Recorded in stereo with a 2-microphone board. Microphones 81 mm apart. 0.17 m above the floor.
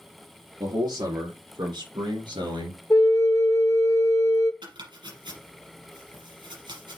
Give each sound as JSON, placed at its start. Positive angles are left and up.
{"t": 0.6, "sound": "a man speaking", "side_deg": -60, "distance_m": 4.0}
{"t": 2.9, "sound": "a flute", "side_deg": 45, "distance_m": 0.9}
{"t": 4.6, "sound": "chopping", "side_deg": -70, "distance_m": 5.0}